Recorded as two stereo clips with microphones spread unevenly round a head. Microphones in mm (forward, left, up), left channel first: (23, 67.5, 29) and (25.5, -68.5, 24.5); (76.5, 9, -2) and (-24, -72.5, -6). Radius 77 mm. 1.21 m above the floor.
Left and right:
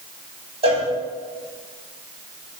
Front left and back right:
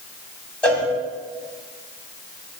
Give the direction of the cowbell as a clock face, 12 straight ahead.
1 o'clock.